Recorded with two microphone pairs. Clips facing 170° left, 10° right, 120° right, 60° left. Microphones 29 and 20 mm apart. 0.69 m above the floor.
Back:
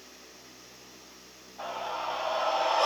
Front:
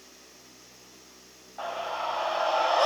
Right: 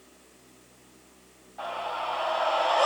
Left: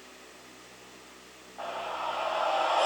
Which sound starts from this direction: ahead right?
A scream, at 1.6 s.